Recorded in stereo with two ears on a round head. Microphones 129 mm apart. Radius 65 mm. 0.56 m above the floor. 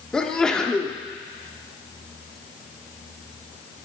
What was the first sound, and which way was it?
A sneeze, 5° left (ahead or behind).